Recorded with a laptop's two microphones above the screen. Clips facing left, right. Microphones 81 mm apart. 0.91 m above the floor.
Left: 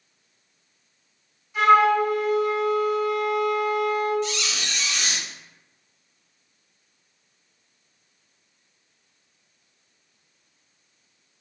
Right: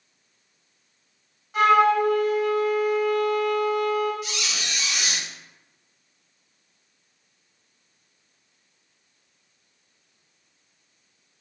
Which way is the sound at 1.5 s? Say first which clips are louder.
Left 1 dB; 65° right (ahead or behind).